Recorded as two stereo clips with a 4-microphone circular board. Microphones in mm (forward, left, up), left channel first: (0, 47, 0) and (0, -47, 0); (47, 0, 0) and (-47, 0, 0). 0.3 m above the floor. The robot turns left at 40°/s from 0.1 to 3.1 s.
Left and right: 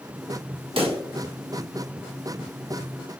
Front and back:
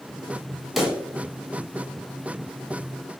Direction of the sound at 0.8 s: 95° right.